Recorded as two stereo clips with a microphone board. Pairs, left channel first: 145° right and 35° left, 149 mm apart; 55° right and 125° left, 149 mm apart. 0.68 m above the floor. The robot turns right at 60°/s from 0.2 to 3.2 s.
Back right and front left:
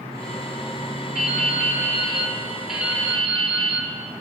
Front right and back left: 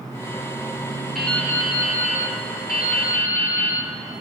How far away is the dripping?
About 4.5 m.